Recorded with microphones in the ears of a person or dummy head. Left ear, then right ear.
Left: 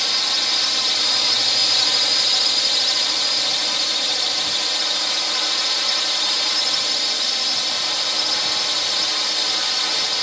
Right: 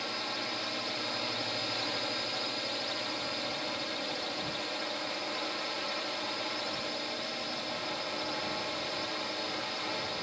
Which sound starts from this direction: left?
A drone, at 0.0 s.